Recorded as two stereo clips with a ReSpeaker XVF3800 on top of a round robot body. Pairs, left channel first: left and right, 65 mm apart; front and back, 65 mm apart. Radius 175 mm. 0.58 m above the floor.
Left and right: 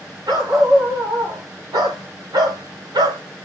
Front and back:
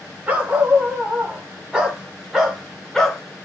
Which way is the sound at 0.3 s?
110° right.